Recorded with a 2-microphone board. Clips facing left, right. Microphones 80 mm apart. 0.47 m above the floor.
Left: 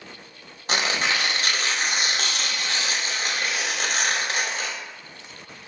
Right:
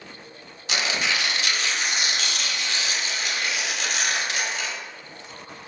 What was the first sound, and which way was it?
Tearing paper, 40° left (ahead or behind).